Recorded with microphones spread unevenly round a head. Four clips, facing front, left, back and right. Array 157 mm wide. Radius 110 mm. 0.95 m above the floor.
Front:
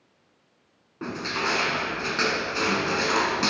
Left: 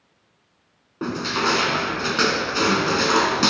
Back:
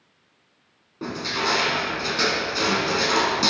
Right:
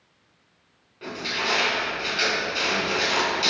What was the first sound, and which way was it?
Crushing, 90° left.